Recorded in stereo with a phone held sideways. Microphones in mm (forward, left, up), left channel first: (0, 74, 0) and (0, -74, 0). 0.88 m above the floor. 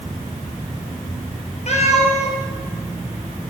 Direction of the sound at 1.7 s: 50° left (ahead or behind).